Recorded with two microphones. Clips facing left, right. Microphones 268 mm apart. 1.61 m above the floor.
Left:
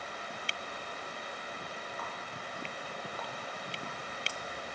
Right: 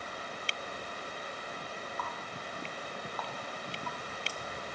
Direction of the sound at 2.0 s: 25° left (ahead or behind).